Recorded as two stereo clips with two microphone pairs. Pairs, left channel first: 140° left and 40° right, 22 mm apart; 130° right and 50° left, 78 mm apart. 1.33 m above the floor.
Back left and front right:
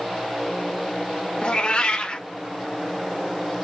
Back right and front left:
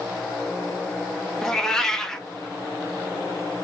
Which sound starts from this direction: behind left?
A cat meowing, at 1.4 s.